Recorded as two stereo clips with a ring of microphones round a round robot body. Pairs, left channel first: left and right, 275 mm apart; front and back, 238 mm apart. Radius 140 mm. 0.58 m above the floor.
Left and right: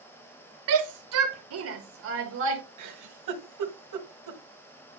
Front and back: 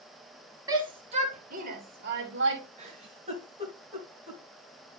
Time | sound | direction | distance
0.7 | a shout | 105° right | 1.7 m
2.8 | a giggle | 110° right | 2.5 m